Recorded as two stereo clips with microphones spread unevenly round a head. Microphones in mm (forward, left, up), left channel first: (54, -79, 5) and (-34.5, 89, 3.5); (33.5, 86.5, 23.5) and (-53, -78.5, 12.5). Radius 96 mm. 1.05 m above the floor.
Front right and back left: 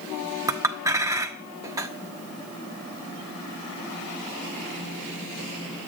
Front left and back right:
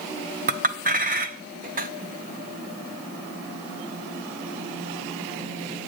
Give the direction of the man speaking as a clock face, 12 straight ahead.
No man speaking in this recording.